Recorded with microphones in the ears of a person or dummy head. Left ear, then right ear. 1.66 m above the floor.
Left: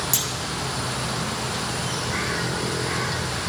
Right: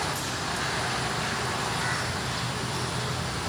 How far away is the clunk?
About 1.2 m.